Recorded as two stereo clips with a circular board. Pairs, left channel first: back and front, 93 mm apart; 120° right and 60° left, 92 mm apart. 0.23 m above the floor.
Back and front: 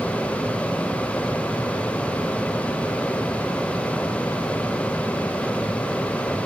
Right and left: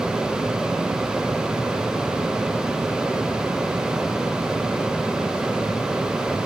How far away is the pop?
No pop in this recording.